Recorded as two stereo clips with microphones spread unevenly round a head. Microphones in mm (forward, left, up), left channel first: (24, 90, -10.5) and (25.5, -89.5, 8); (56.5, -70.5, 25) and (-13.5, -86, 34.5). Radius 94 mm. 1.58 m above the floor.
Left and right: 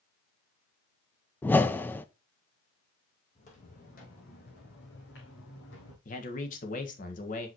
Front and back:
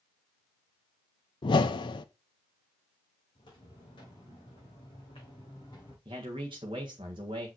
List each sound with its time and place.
1.4 s a whoosh: 10° left, 0.6 m
3.4 s footsteps: 40° left, 4 m; by 6.0 s 80° left, 4.5 m
6.0 s a man speaking: 145° left, 1.5 m